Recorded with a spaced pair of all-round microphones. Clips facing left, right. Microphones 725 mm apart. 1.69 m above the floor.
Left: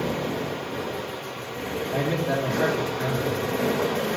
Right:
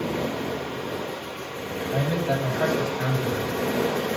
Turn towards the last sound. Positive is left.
turn(degrees=-30)  # may be behind; listen again after turning